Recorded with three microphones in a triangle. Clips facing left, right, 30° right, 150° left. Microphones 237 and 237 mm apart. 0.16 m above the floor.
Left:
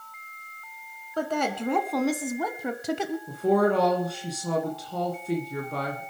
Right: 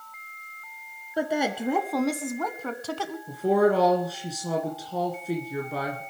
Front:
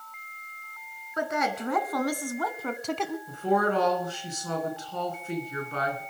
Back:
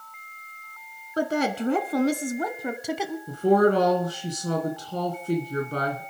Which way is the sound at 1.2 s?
165° right.